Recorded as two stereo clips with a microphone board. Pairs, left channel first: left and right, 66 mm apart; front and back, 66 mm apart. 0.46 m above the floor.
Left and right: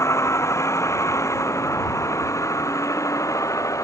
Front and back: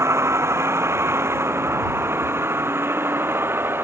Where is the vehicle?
135° left; by 3.8 s 125° left.